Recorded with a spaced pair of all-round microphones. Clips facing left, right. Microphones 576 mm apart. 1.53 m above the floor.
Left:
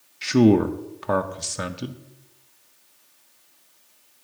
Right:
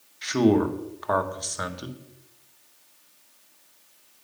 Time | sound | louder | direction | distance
0.2 | a man speaking | left 4 dB | 55° left (ahead or behind) | 0.6 m